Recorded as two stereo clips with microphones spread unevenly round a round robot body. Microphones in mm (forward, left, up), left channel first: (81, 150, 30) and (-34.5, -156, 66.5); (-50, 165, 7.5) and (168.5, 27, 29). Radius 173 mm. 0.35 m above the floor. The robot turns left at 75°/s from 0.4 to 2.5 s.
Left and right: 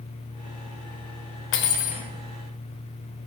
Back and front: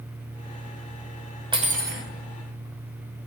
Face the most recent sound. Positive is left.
turn(degrees=-35)